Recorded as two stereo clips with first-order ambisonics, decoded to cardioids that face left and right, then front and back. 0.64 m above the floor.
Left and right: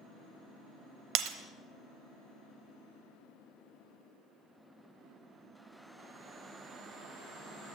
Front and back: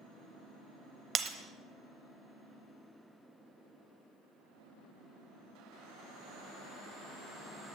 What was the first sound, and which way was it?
Breaking glass, 115° right.